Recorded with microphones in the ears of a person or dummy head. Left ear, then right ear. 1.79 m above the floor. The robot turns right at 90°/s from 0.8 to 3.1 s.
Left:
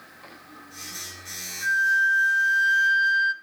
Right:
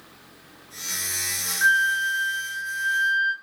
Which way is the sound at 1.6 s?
80° right.